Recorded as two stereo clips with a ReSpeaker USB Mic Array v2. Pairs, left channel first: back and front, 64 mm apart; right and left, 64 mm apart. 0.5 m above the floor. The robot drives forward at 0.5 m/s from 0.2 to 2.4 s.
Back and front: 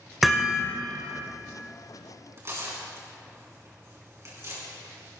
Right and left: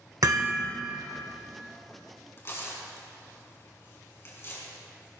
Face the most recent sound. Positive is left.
turn(degrees=-45)